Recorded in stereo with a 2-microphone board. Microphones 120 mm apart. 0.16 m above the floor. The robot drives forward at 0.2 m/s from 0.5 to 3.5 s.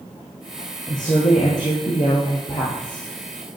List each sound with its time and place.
0.9 s a woman speaking: 40° left (ahead or behind), 7.5 m